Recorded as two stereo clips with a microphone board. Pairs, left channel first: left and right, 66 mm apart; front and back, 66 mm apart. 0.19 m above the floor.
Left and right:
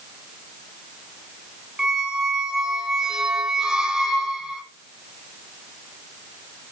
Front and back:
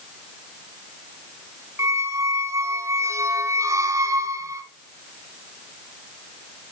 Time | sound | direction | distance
1.8 | a squeak | 170° right | 1.4 m